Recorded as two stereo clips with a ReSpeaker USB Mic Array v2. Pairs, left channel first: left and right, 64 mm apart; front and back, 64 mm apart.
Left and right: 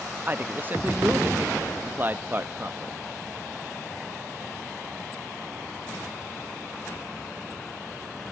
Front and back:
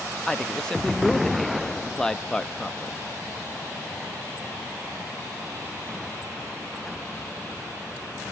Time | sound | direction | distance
0.3 | a man speaking | 70° right | 0.7 m